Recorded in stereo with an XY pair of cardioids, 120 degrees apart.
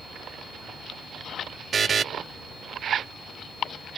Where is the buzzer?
35° right.